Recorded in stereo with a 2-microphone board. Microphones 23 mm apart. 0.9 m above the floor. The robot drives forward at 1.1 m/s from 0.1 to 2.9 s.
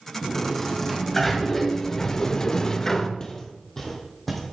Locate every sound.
0.2 s a sliding door: 5° left (ahead or behind), 2.5 m; by 3.1 s 20° left (ahead or behind), 0.7 m
3.2 s footsteps: 30° left (ahead or behind), 1.8 m; by 4.4 s 5° left (ahead or behind), 3 m